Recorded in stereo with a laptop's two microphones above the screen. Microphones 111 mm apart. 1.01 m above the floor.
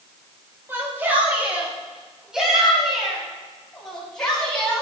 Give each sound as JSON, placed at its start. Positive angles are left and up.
{"t": 0.7, "sound": "a shout", "side_deg": -20, "distance_m": 6.5}